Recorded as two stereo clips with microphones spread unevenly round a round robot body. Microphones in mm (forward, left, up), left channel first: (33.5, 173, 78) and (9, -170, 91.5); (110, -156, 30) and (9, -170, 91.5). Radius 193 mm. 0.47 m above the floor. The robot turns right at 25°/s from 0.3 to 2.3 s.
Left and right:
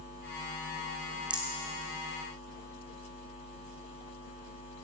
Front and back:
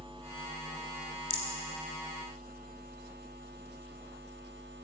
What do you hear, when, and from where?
1.3 s a rattle: 10° right, 4.5 m; by 1.6 s straight ahead, 4.5 m